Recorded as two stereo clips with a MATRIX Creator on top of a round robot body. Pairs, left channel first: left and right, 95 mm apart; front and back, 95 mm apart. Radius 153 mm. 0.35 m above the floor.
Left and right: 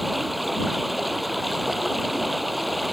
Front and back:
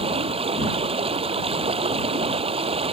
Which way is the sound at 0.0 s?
Straight behind.